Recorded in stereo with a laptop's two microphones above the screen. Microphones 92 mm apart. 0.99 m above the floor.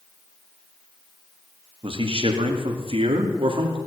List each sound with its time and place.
1.8 s a man speaking: 70° right (ahead or behind), 2 m